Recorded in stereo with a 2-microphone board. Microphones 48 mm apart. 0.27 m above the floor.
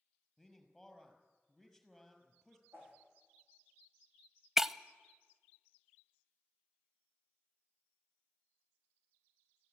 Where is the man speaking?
Centre (ahead or behind), 5 m.